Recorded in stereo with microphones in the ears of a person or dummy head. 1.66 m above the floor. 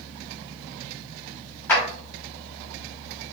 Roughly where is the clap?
Centre.